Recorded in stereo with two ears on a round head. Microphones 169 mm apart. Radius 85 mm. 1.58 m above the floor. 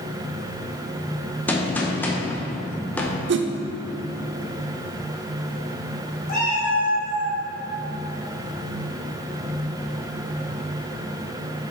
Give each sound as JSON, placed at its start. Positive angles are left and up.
{"t": 1.5, "sound": "a gunshot", "side_deg": 10, "distance_m": 0.9}
{"t": 3.3, "sound": "a whoosh", "side_deg": -65, "distance_m": 0.5}
{"t": 6.3, "sound": "a cat meowing", "side_deg": 45, "distance_m": 2.5}